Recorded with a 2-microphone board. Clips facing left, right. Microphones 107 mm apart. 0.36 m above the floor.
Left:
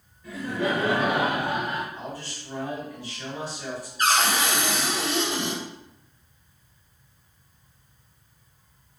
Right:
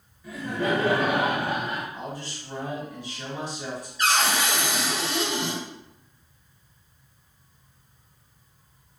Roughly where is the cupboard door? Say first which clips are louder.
Left 1 dB; left.